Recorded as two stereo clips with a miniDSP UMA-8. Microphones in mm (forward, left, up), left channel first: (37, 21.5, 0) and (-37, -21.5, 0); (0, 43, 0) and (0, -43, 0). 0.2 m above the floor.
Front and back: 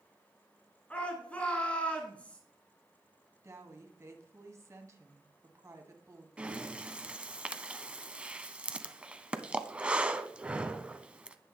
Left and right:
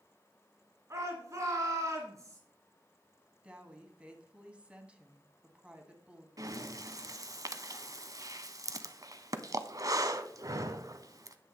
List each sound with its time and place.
0.9 s a shout: 45° right, 1.9 m
3.4 s a woman speaking: 155° right, 1.5 m
6.4 s breathing: 80° right, 0.6 m